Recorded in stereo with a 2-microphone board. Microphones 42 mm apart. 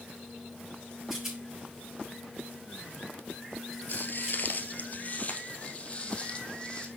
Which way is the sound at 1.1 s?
10° right (ahead or behind).